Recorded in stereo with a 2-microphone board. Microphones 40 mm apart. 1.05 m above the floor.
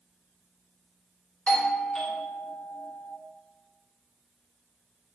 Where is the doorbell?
20° left (ahead or behind), 0.7 m.